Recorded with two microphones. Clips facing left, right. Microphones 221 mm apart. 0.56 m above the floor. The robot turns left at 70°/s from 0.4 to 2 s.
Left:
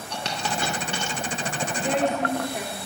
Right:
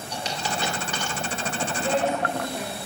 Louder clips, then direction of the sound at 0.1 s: Left 1 dB; 65° left (ahead or behind).